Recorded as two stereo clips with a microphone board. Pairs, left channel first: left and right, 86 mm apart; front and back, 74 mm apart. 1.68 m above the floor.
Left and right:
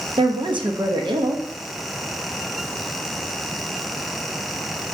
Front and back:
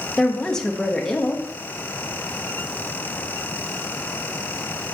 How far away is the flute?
I don't hear a flute.